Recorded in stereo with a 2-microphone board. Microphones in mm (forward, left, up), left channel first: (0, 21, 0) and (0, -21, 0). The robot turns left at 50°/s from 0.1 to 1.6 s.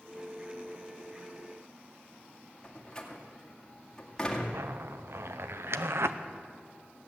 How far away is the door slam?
About 2.0 m.